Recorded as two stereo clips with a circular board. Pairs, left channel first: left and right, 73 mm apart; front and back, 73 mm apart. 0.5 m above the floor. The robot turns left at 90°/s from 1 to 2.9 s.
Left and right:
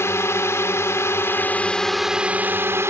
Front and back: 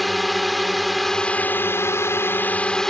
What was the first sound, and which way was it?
A drone, 90° left.